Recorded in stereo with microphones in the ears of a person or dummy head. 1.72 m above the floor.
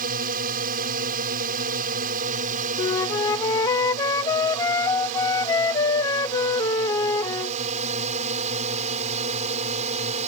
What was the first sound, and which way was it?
A drone, 50° right (ahead or behind).